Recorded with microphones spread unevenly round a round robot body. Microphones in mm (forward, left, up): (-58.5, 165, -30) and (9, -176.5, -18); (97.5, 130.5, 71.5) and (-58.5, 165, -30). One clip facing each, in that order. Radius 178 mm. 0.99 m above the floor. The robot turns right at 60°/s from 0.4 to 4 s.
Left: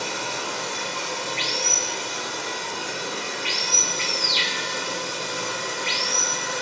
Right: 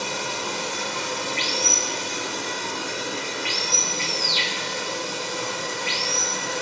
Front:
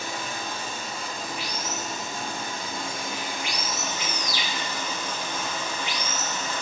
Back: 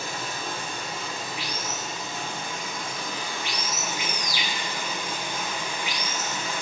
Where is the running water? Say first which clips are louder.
Right 1 dB, even; 140° right, 1.7 m; by 6.6 s 75° left, 1.7 m.